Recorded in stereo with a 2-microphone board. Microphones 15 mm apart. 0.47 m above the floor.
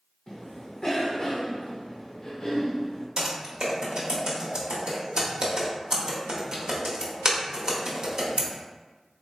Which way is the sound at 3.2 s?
50° right (ahead or behind).